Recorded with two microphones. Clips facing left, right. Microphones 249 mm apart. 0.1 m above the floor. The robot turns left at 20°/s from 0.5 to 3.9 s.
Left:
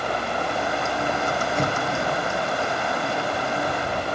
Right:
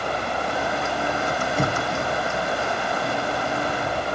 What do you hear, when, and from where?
1.6 s an explosion: 5° right (ahead or behind), 1.2 m; by 2.0 s 15° right (ahead or behind), 1.2 m